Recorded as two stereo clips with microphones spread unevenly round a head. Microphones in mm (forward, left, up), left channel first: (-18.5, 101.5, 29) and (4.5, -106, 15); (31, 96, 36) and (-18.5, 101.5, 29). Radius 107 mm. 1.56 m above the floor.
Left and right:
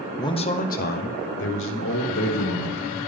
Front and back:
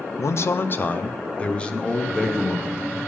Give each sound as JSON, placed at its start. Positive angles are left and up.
{"t": 0.2, "sound": "a man speaking", "azimuth_deg": 20, "distance_m": 0.7}